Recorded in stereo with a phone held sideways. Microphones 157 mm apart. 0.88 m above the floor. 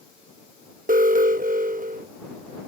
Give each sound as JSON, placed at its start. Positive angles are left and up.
{"t": 0.9, "sound": "an alarm", "side_deg": -60}